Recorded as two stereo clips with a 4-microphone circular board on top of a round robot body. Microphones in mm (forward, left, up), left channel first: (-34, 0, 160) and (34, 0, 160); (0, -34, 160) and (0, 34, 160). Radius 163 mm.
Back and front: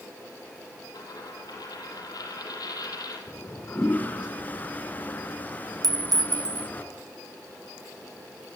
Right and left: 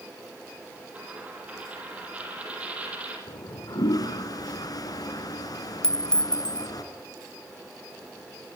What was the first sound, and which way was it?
A dropped coin, 160° left.